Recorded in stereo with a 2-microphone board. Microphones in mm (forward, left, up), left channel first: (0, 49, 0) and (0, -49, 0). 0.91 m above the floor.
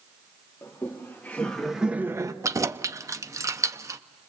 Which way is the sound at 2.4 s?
30° right (ahead or behind).